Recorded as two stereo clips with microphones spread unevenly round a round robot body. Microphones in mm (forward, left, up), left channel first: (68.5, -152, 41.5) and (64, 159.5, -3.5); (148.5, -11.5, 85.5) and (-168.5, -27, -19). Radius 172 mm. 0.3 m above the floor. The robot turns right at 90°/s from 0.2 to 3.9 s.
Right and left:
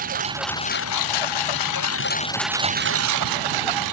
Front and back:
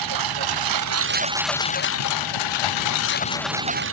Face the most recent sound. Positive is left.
turn(degrees=130)